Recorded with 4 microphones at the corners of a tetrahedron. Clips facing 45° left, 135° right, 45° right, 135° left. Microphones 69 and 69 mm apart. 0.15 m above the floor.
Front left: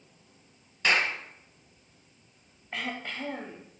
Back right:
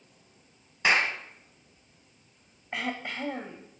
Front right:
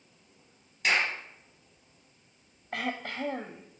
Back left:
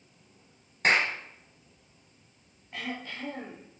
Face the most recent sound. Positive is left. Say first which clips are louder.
# back right 2 dB, front right 4 dB
turn(degrees=-55)